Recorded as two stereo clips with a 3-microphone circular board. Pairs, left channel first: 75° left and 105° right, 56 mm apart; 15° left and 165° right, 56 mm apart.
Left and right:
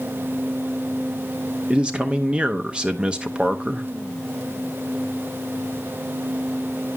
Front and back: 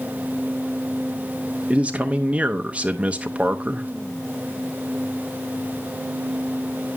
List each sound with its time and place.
1.7 s a man speaking: 150° right, 0.6 m